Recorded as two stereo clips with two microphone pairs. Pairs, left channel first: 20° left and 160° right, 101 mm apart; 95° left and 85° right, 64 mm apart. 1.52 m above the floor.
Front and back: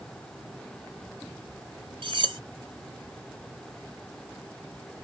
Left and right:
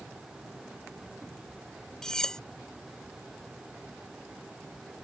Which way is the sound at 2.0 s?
175° left.